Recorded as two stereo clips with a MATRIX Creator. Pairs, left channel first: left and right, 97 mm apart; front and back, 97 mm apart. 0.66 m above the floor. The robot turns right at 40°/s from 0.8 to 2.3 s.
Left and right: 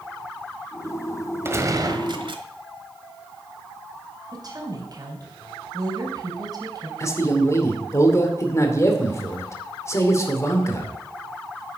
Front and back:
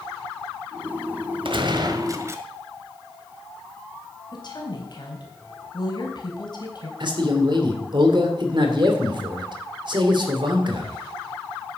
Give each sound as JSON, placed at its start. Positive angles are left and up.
{"t": 1.4, "sound": "a gunshot", "azimuth_deg": -155, "distance_m": 1.2}
{"t": 4.3, "sound": "a woman speaking", "azimuth_deg": -40, "distance_m": 3.5}
{"t": 7.0, "sound": "a man speaking", "azimuth_deg": 150, "distance_m": 2.0}